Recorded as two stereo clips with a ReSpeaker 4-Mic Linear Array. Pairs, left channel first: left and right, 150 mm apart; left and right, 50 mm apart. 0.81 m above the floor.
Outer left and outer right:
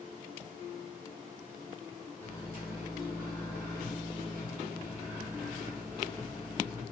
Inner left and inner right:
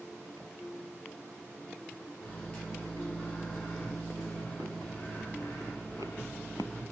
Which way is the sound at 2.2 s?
35° left (ahead or behind).